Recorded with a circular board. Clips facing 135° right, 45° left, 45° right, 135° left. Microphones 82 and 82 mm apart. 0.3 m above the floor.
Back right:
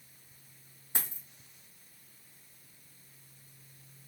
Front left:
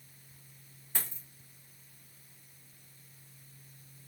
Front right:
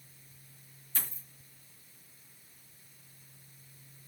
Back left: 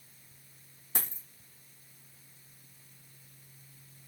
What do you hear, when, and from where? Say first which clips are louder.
0.9 s a dropped coin: back right 1 dB, back left 3 dB; 155° left, 1.1 m